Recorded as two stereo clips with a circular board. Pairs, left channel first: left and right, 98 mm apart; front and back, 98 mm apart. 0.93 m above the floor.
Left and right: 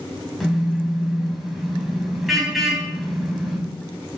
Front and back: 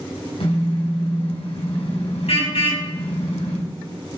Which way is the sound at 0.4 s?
Straight ahead.